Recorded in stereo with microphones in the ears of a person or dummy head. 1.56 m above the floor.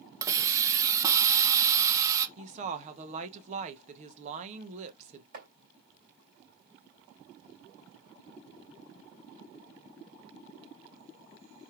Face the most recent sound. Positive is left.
turn(degrees=-50)  # may be behind; listen again after turning